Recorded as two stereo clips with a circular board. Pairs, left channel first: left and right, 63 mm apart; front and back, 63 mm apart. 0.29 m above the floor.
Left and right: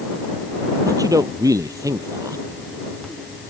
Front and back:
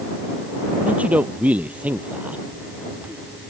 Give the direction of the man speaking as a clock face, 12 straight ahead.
4 o'clock.